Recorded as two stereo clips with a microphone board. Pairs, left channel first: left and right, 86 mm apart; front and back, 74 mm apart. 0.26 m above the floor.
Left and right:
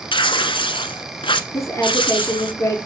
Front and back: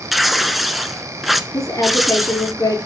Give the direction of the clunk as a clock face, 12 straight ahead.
I don't hear a clunk.